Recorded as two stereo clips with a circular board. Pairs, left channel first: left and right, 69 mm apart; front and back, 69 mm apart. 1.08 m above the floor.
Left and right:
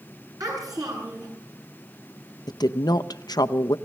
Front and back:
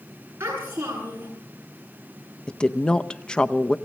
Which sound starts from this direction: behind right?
A child speaking, at 0.4 s.